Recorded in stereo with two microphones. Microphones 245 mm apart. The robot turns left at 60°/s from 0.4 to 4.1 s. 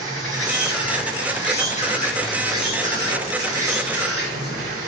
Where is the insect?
115° left, 1.1 m; by 4.9 s 110° right, 1.1 m.